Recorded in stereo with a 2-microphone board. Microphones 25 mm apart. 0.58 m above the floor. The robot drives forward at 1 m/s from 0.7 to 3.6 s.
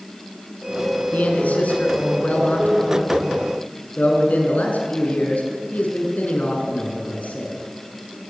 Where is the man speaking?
80° left, 6 m; by 7.5 s 75° left (ahead or behind), 6.5 m.